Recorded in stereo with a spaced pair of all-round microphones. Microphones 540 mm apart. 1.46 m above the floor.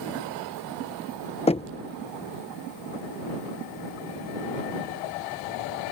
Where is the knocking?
10° left (ahead or behind).